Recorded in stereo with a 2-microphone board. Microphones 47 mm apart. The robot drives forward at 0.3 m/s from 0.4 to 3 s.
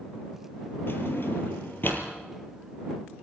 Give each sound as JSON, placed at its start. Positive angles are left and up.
{"t": 0.9, "sound": "a drawer", "side_deg": 55, "distance_m": 3.0}